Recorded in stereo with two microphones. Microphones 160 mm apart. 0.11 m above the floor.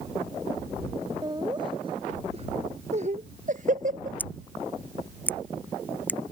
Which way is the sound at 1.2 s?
25° right (ahead or behind).